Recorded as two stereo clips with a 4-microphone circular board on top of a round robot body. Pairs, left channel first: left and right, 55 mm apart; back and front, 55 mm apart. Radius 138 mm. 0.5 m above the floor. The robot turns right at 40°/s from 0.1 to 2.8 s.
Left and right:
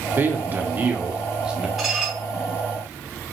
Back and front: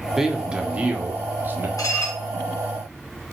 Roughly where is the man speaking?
Right.